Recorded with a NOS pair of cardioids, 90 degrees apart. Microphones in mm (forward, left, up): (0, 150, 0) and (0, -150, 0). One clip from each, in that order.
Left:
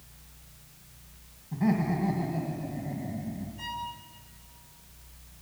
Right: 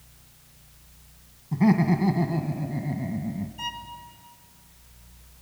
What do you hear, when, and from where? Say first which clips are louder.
1.5 s laughter: right 6 dB; 45° right, 1.7 m
3.6 s a violin: right 2 dB; 25° right, 2.5 m